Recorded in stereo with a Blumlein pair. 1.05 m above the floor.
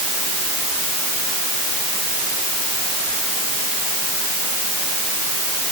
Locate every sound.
Only background noise.